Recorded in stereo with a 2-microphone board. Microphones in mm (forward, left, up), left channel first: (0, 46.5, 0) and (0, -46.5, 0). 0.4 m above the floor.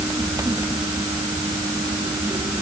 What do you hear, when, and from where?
Only background noise.